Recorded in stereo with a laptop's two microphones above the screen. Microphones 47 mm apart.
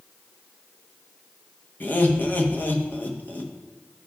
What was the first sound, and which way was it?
Laughter, 40° left (ahead or behind).